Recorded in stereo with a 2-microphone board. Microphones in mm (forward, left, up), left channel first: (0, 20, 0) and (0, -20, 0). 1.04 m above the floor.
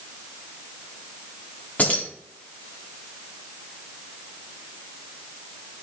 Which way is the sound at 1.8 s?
45° left (ahead or behind).